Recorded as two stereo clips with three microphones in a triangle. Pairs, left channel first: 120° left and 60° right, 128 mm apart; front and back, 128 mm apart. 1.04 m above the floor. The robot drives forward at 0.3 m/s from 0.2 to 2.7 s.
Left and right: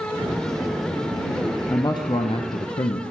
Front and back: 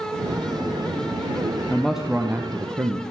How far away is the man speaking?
About 0.5 m.